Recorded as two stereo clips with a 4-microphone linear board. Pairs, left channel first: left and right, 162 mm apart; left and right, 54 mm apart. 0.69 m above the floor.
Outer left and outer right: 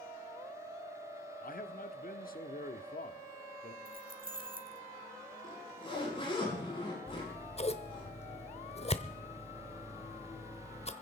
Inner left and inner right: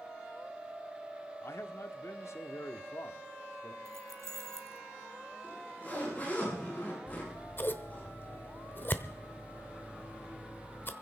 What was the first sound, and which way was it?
A man speaking, 60° left (ahead or behind).